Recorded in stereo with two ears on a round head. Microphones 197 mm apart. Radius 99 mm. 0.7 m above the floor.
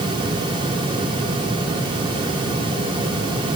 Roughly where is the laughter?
No laughter in this recording.